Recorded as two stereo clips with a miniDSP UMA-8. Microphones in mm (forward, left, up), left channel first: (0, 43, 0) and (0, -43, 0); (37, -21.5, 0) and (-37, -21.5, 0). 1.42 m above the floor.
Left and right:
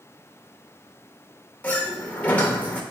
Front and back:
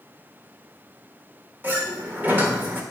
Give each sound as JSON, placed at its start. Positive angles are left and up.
{"t": 1.6, "sound": "a sliding door", "azimuth_deg": 145, "distance_m": 1.2}